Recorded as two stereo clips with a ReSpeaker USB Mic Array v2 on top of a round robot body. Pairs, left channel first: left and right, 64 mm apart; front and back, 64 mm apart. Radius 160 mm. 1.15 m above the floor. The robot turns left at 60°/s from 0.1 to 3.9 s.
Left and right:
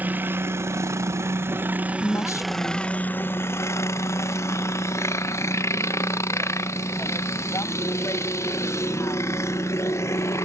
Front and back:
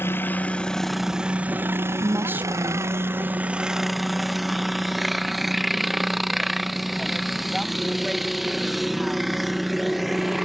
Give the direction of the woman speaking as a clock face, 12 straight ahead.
7 o'clock.